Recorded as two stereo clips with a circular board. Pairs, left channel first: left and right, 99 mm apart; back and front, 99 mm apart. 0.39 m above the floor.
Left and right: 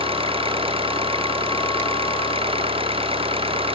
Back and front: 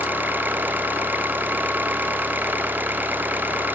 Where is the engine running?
70° right.